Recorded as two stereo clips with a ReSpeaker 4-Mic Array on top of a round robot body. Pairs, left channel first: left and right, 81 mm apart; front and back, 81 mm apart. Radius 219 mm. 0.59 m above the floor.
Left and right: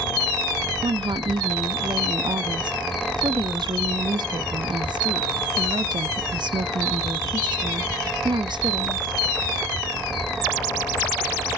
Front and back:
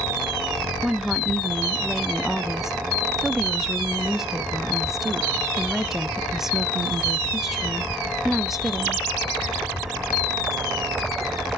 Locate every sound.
0.8 s a woman speaking: 95° right, 1.0 m